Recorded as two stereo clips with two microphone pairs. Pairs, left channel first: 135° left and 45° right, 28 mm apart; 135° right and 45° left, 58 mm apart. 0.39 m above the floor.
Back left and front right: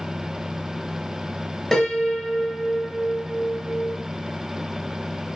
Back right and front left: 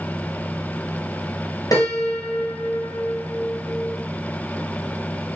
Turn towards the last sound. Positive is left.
turn(degrees=-145)